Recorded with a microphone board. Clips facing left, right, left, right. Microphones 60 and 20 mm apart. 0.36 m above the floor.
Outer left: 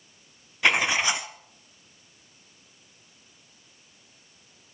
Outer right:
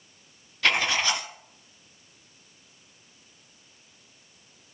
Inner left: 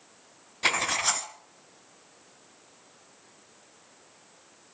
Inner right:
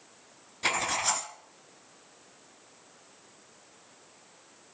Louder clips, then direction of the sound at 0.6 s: Outer left 2 dB, inner left 3 dB; 15° left (ahead or behind).